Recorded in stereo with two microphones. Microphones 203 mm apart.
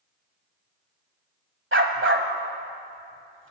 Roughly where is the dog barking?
Right.